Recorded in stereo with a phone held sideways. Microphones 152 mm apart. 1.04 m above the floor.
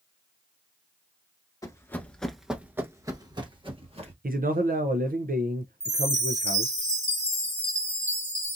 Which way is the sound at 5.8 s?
45° right (ahead or behind).